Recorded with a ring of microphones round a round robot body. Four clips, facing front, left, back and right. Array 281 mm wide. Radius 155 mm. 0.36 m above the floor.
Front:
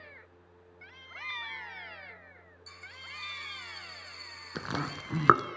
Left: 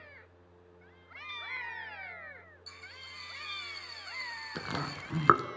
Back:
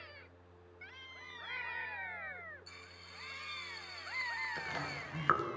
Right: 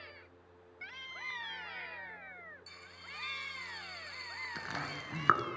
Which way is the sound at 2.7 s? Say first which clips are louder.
Left 1 dB, front 6 dB; 25° left.